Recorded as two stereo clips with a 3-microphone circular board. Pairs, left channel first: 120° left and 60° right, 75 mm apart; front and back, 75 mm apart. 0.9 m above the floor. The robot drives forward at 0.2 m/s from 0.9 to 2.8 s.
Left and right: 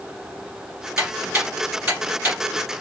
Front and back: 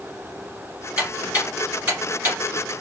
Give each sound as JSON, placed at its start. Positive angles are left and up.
{"t": 1.0, "sound": "ticking", "azimuth_deg": -115, "distance_m": 1.9}